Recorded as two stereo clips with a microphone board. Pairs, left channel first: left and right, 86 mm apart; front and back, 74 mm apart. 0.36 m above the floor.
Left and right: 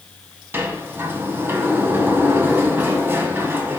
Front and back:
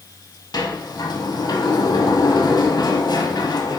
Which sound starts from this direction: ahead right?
A sliding door, at 0.5 s.